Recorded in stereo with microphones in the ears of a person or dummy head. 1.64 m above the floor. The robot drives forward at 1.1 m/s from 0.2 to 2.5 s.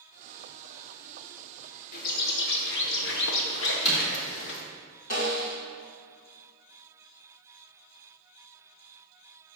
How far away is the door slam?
About 3.5 m.